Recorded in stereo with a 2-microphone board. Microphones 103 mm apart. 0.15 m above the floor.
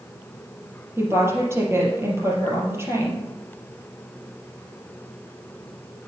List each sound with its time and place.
1.0 s a woman speaking: 25° right (ahead or behind), 3.5 m